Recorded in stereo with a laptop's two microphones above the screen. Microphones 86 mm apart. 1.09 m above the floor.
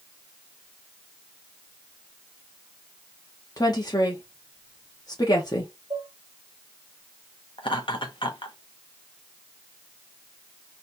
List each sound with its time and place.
3.6 s a woman speaking: 50° left (ahead or behind), 1.0 m
5.9 s dishes clattering: 50° right (ahead or behind), 2 m
7.6 s laughter: 75° left (ahead or behind), 0.8 m